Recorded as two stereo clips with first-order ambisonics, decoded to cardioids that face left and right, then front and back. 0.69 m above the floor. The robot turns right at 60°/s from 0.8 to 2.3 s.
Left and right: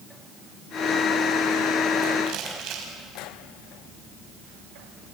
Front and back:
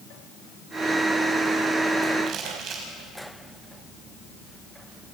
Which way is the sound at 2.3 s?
130° right.